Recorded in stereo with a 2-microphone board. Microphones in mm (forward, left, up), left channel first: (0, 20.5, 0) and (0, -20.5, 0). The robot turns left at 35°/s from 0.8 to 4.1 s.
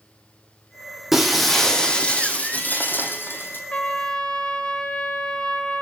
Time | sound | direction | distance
1.1 | breaking glass | 175° right | 2.0 m
3.7 | a trumpet | 35° left (ahead or behind) | 1.3 m